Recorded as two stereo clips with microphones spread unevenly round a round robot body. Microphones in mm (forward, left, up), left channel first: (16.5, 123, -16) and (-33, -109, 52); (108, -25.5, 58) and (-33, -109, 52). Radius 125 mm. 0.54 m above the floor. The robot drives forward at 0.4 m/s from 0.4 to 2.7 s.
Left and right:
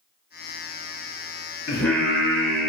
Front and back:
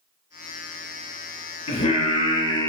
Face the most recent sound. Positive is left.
turn(degrees=-30)